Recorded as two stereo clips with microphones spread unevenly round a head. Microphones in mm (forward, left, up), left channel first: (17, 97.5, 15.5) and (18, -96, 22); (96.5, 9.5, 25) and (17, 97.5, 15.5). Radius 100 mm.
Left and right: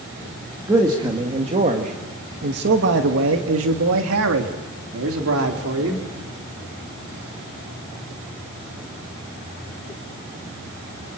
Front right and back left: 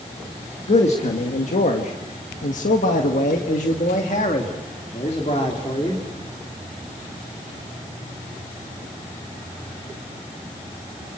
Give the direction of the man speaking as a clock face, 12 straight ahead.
1 o'clock.